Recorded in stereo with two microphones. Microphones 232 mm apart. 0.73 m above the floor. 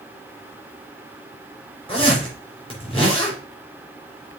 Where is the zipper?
25° left (ahead or behind), 4.5 m.